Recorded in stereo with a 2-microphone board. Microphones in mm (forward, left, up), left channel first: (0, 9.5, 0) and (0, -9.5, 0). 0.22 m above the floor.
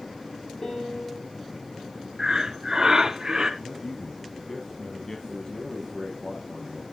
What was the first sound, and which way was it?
A piano, 30° left (ahead or behind).